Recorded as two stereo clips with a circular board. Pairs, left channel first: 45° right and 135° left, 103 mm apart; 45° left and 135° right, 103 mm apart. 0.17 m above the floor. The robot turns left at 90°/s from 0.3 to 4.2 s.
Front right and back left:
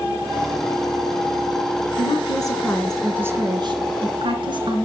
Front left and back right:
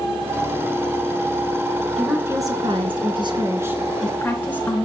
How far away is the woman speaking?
About 2.5 m.